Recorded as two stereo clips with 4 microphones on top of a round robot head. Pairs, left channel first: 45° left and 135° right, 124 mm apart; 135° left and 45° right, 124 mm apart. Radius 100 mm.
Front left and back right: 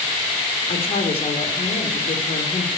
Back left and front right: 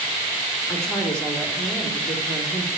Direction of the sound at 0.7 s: 55° left.